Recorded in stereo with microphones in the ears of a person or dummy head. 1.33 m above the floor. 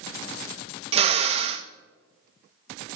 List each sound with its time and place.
0.9 s a drill: 35° right (ahead or behind), 0.7 m